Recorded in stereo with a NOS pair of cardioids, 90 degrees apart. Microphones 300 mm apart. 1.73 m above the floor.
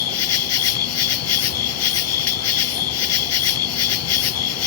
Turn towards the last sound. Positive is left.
turn(degrees=65)